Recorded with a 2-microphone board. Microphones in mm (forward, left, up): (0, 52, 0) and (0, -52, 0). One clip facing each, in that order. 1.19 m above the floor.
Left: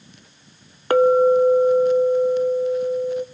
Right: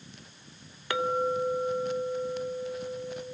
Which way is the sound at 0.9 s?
50° left (ahead or behind).